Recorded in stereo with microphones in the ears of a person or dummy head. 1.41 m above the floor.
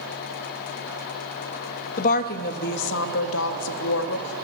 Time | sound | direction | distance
2.0 | a woman speaking | 50° left (ahead or behind) | 1.9 m